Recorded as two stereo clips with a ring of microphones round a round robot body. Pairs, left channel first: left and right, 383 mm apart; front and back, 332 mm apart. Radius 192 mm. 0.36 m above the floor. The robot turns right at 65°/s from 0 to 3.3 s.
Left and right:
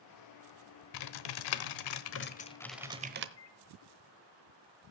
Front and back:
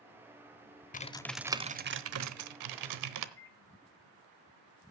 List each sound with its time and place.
0.9 s typing on a keyboard: 65° left, 0.8 m; by 3.3 s 145° right, 0.8 m
3.4 s a microwave: 45° left, 1.9 m